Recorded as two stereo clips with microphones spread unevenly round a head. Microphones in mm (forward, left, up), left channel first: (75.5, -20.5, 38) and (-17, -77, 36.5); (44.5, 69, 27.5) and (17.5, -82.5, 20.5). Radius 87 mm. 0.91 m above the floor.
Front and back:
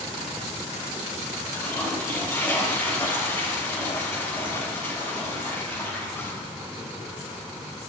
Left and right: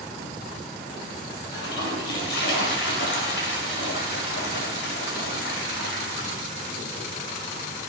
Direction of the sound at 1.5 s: 110° left.